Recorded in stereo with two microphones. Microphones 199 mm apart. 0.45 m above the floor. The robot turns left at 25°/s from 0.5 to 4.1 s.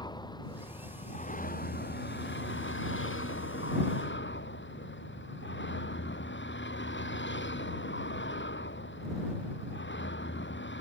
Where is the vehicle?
160° left; by 10.8 s 70° left.